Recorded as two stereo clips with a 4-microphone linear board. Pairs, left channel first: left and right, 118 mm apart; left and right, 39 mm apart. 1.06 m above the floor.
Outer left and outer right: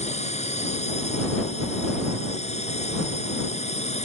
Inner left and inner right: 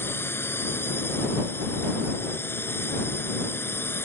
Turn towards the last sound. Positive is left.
turn(degrees=65)  # may be behind; listen again after turning